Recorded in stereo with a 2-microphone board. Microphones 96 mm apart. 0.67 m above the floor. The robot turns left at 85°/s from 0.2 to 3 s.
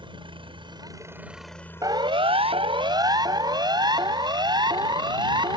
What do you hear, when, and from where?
0.0 s a helicopter: 75° right; by 5.6 s 50° left
1.8 s a siren: 35° right (ahead or behind); by 5.6 s 50° right (ahead or behind)